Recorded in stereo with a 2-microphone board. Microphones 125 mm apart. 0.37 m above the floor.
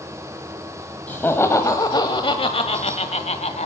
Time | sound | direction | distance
1.1 | laughter | 15° left (ahead or behind) | 1.7 m